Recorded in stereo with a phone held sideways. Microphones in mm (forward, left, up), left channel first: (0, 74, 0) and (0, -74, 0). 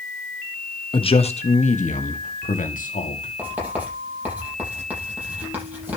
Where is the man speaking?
35° left (ahead or behind), 1.3 m; by 3.3 s 60° left (ahead or behind), 2.5 m.